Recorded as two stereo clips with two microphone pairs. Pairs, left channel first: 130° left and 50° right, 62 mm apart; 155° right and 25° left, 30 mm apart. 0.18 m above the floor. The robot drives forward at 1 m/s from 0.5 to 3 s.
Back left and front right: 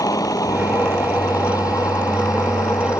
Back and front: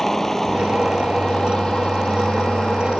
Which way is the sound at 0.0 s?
130° left.